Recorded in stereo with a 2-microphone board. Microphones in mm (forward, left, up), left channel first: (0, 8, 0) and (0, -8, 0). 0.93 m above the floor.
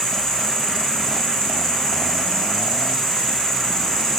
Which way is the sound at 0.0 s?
45° left (ahead or behind).